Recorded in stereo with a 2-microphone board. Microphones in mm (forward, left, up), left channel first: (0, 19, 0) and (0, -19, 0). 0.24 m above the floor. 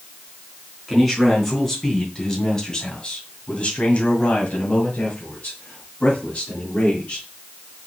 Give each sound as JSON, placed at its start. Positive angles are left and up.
{"t": 0.9, "sound": "a man speaking", "side_deg": 5, "distance_m": 2.5}